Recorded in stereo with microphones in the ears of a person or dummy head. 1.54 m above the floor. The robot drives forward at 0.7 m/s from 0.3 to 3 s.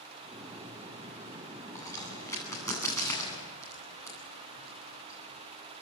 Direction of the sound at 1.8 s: 20° left (ahead or behind).